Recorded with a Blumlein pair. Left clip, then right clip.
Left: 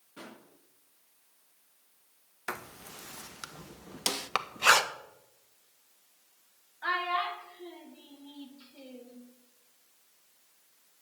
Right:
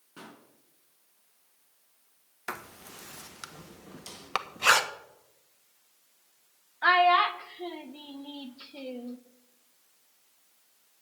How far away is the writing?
About 0.6 m.